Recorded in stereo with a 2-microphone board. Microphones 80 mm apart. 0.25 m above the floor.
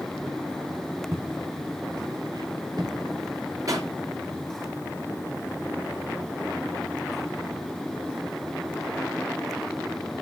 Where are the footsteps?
40° right (ahead or behind), 1.2 m; by 2.9 s 65° right (ahead or behind), 2.5 m.